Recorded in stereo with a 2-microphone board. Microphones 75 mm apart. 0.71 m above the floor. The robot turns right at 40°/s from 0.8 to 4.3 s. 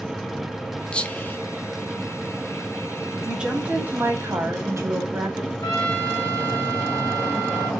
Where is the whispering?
15° left (ahead or behind), 0.7 m; by 1.4 s 25° left (ahead or behind), 0.7 m.